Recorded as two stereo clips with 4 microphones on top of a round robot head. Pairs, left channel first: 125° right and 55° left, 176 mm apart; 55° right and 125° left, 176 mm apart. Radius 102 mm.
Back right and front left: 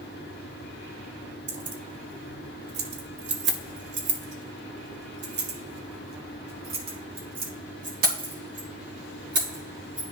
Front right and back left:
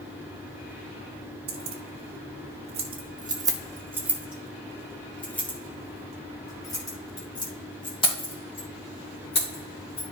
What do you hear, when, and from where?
1.5 s keys jangling: 100° left, 1.8 m; by 10.0 s 5° left, 4.5 m